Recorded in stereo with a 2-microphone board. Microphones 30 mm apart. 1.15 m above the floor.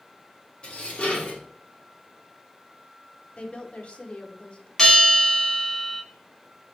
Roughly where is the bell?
Centre.